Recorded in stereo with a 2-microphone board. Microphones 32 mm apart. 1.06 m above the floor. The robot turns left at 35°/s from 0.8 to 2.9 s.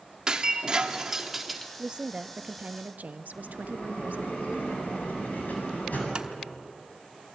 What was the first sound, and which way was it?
Breaking glass, 150° right.